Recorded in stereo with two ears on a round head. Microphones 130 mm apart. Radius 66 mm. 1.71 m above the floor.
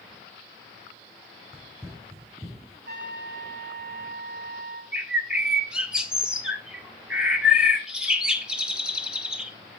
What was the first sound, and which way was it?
Running footsteps, 10° right (ahead or behind).